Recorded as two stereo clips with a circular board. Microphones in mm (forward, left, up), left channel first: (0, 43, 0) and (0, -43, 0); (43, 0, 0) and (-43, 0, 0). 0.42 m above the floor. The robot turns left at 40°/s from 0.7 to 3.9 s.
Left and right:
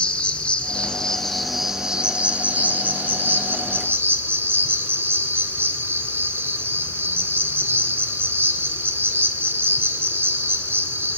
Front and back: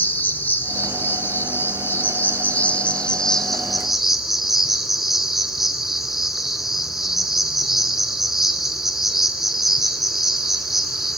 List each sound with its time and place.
0.0 s an insect: 30° left, 2 m; by 11.2 s 100° right, 2 m